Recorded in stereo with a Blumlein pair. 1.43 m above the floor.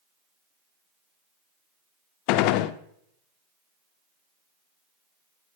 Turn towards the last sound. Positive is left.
turn(degrees=45)